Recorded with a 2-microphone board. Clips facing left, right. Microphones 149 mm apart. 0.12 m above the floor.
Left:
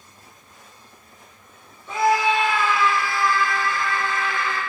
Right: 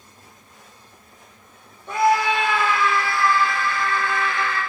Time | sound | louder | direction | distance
1.9 | a scream | right 1 dB | 60° right (ahead or behind) | 4 m